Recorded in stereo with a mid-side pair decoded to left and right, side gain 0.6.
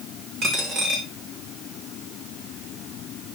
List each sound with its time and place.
0.4 s a dropped coin: 45° right, 5.5 m